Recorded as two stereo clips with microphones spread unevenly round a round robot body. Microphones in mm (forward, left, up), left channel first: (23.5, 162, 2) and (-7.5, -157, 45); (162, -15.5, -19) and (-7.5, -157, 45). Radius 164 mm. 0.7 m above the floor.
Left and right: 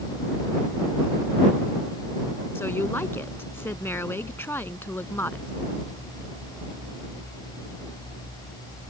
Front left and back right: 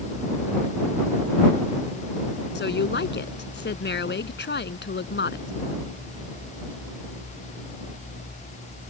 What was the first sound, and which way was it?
A woman speaking, straight ahead.